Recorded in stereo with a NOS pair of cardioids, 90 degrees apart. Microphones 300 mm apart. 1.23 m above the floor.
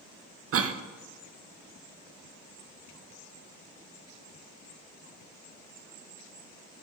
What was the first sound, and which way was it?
A cough, 50° right.